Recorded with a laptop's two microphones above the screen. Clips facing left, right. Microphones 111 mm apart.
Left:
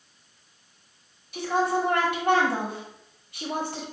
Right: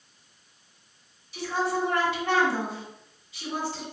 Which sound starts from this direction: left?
A woman speaking, at 1.3 s.